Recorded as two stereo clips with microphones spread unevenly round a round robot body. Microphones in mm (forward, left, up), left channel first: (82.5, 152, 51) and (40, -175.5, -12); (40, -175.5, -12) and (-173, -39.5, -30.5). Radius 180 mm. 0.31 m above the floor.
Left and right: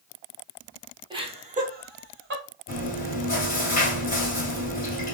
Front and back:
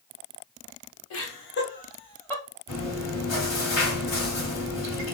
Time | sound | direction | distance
1.1 | laughter | 35° right | 1.4 m
2.7 | chewing | 15° left | 2 m